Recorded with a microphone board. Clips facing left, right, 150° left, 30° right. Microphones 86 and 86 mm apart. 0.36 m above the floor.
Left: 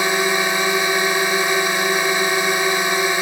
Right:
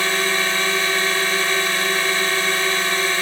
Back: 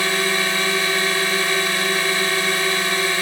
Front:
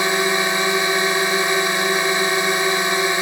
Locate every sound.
0.0 s a drone: 25° left